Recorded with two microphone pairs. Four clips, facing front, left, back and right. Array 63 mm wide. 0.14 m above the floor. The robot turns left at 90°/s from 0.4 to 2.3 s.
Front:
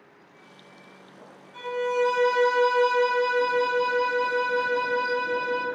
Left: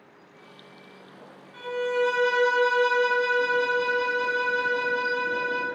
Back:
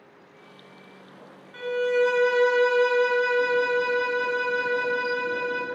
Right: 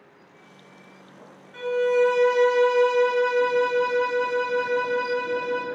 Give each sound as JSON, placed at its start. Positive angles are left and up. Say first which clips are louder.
{"t": 1.5, "sound": "a violin", "louder": "right 5 dB, back 2 dB", "azimuth_deg": -160, "distance_m": 0.9}